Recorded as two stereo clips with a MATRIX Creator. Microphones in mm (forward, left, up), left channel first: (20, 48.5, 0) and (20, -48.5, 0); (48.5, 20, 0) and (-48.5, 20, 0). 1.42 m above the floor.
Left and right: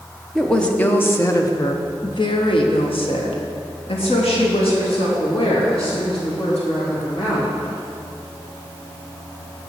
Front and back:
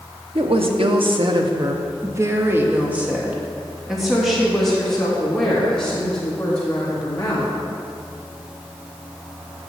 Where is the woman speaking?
175° left, 1.0 m; by 7.5 s 75° left, 3.5 m.